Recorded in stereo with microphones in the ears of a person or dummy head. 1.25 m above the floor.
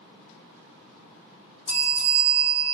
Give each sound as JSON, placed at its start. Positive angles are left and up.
{"t": 1.7, "sound": "a bell", "side_deg": 35, "distance_m": 1.3}